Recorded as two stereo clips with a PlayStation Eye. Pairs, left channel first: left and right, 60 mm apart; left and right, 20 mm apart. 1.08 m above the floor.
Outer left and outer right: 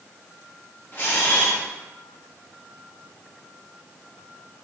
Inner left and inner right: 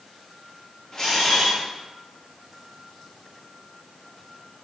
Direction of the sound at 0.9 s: 35° left (ahead or behind).